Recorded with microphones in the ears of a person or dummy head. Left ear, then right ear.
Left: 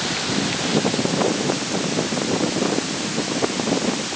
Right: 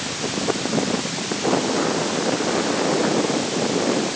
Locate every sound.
Only background noise.